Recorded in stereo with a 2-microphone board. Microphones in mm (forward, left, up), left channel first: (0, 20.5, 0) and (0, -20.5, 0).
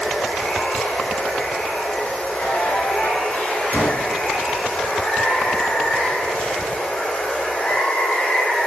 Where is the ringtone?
55° left (ahead or behind), 9.5 m.